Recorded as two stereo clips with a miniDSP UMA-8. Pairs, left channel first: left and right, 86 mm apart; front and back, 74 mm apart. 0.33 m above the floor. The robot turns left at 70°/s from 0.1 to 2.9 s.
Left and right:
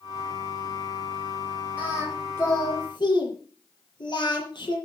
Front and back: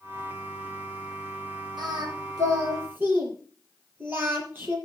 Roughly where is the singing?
Behind.